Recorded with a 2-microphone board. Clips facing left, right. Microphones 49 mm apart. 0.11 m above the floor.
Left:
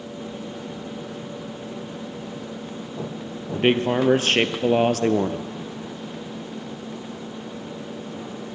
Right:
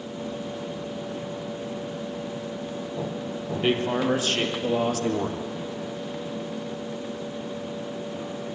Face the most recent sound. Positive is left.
turn(degrees=55)  # may be behind; listen again after turning